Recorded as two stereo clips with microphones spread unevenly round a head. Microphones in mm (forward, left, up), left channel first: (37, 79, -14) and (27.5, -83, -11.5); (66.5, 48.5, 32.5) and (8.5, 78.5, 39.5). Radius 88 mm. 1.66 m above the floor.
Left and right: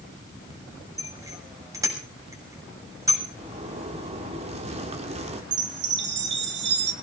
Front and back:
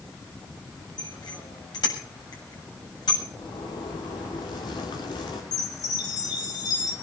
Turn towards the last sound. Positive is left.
turn(degrees=-80)